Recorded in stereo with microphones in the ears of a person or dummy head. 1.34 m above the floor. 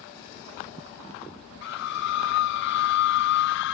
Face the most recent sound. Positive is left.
turn(degrees=70)  # may be behind; listen again after turning